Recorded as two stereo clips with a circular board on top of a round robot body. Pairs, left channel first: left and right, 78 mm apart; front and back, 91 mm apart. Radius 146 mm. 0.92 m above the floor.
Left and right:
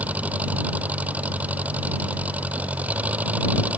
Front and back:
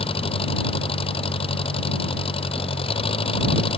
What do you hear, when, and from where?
0.0 s an engine running: 20° right